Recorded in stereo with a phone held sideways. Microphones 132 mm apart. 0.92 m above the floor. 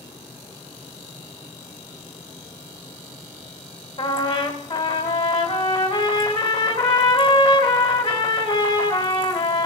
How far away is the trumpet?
About 2 m.